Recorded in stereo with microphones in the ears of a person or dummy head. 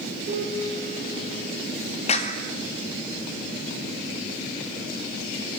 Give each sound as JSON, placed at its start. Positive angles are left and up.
{"t": 0.3, "sound": "a piano", "side_deg": -35, "distance_m": 9.5}
{"t": 2.1, "sound": "a clap", "side_deg": 35, "distance_m": 2.5}